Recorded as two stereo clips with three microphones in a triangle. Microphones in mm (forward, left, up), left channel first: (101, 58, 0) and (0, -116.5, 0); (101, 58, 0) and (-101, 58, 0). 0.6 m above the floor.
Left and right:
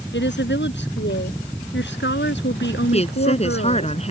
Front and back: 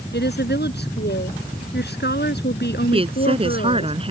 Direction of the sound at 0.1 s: 35° left.